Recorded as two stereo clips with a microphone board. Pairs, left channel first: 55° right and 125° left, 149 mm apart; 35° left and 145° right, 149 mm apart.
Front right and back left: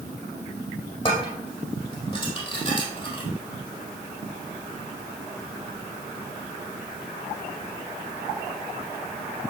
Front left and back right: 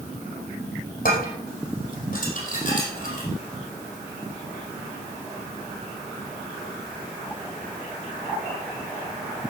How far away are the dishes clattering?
About 4 m.